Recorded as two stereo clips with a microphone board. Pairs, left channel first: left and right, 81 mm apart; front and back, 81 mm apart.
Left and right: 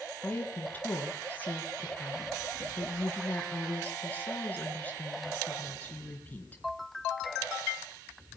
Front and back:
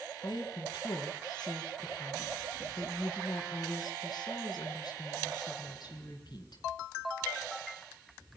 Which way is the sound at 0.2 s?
25° left.